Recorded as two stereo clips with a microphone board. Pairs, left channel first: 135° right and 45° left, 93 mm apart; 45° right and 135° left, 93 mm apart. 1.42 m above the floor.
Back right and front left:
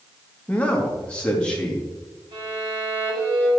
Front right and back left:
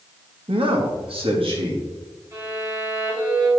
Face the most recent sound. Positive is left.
turn(degrees=80)